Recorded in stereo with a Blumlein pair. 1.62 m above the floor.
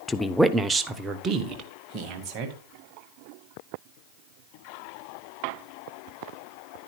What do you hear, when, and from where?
0.1 s a woman speaking: 15° left, 0.6 m; by 2.5 s 35° right, 2.5 m